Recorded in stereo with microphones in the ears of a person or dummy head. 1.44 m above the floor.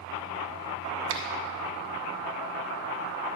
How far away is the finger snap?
About 1.2 m.